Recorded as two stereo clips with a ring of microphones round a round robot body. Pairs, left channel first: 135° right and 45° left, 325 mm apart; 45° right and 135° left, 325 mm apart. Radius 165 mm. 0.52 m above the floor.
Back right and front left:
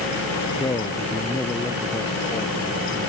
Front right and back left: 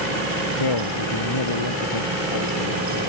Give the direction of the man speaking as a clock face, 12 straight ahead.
2 o'clock.